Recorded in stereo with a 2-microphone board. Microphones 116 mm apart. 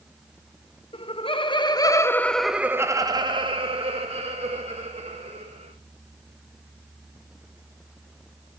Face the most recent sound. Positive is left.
turn(degrees=-70)  # may be behind; listen again after turning